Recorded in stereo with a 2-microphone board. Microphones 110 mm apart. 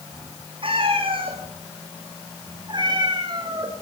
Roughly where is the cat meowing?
Right.